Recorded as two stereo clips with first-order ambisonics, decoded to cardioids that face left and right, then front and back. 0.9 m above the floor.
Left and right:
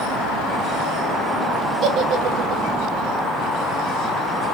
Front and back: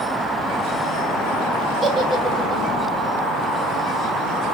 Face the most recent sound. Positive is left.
turn(degrees=-105)